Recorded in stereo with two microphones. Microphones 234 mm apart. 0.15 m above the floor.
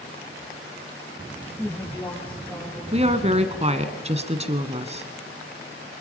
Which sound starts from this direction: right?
A woman speaking, at 2.9 s.